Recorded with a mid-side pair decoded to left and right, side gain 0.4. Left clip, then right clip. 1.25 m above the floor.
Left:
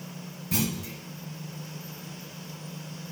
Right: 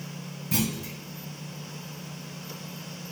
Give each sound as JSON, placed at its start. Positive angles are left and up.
{"t": 0.5, "sound": "a clunk", "azimuth_deg": -15, "distance_m": 1.5}